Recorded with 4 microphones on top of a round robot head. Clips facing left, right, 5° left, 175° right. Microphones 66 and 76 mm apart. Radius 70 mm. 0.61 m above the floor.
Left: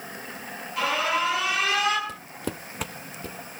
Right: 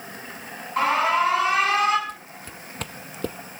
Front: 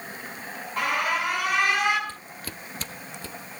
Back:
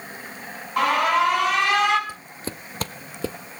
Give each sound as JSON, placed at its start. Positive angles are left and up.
{"t": 0.8, "sound": "an alarm", "azimuth_deg": -145, "distance_m": 5.0}
{"t": 2.1, "sound": "footsteps", "azimuth_deg": 110, "distance_m": 1.0}